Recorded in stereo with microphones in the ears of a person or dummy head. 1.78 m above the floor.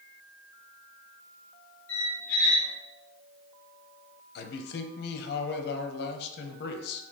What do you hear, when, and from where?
1.9 s a squeak: 25° left (ahead or behind), 1.9 m
4.3 s a man speaking: 50° left (ahead or behind), 0.8 m